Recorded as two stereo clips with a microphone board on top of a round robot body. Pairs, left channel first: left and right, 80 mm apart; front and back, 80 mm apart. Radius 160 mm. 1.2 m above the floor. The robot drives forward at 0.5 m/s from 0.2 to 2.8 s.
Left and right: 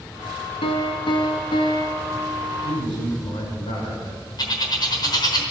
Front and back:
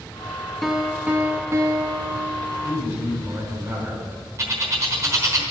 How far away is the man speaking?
About 7 m.